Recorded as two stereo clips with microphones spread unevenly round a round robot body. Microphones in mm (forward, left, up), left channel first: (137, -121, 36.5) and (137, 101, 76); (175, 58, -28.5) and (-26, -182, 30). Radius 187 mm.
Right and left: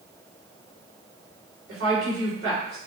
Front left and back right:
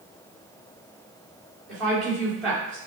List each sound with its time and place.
1.7 s a woman speaking: 130° left, 2 m